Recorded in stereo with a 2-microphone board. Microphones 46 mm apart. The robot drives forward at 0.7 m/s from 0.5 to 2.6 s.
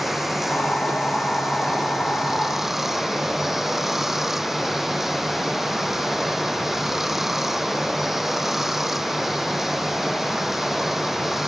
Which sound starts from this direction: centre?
Running water, at 0.0 s.